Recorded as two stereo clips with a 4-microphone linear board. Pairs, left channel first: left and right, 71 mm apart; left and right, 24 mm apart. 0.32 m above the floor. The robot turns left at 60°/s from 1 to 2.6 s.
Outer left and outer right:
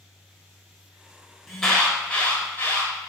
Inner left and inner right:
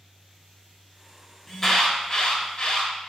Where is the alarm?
Straight behind, 1.4 m; by 2.9 s 110° left, 1.4 m.